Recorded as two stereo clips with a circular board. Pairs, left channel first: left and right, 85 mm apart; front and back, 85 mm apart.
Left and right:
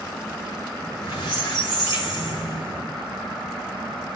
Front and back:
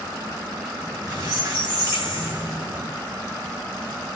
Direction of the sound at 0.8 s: 125° left.